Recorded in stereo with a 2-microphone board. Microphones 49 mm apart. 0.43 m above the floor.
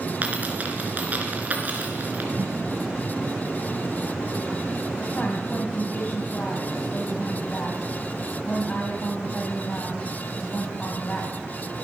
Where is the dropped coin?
35° right (ahead or behind), 3 m.